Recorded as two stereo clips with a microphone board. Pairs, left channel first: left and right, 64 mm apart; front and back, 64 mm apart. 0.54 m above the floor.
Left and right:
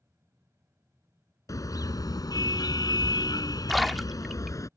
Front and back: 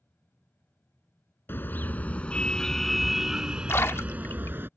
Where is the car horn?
55° left; by 4.7 s 125° left.